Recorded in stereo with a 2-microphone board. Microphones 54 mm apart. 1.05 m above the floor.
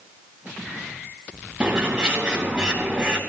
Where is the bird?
10° right (ahead or behind), 6 m.